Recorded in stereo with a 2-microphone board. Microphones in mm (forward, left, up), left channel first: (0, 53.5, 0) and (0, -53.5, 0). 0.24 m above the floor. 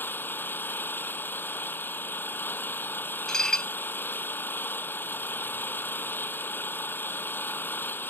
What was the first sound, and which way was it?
An engine running, 20° left (ahead or behind).